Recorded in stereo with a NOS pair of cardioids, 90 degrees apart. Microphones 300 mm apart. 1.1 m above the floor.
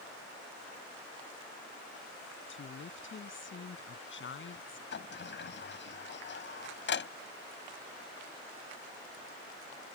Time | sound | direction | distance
2.5 | a woman speaking | 40° left | ?
4.9 | a sliding door | 40° left | ?